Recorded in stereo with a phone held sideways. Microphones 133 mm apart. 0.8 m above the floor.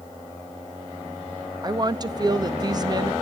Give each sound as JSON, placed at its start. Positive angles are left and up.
{"t": 1.6, "sound": "a woman speaking", "side_deg": -30, "distance_m": 0.8}